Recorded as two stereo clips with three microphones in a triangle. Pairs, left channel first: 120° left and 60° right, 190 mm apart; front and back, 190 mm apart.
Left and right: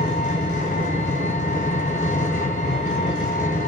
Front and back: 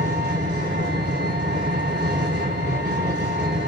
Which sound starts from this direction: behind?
An engine running, at 0.0 s.